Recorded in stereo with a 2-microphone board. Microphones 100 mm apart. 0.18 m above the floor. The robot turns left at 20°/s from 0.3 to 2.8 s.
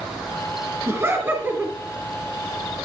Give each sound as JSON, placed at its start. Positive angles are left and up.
{"t": 0.9, "sound": "laughter", "side_deg": -25, "distance_m": 1.2}